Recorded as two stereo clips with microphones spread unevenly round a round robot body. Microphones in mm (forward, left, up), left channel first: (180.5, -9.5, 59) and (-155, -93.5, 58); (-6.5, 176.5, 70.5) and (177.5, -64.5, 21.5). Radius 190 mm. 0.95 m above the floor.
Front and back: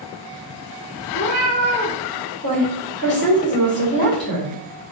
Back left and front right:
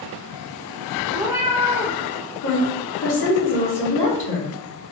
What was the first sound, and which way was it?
A cat meowing, 45° left.